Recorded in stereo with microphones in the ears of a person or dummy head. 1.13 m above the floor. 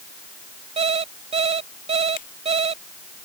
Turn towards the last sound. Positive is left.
turn(degrees=45)  # may be behind; listen again after turning